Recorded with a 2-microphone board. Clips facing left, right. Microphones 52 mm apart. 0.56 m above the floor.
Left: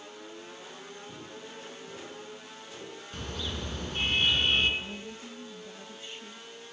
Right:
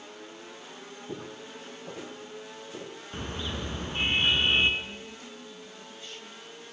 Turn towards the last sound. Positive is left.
turn(degrees=20)  # may be behind; listen again after turning